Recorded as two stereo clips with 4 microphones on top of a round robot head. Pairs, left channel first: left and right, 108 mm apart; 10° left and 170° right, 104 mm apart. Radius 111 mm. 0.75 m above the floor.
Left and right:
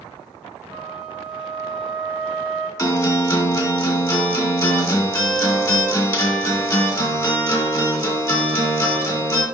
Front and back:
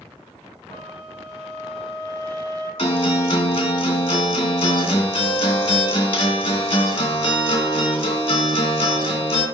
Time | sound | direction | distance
0.7 | a flute | 165° right | 2 m
2.8 | a guitar | 40° left | 2.5 m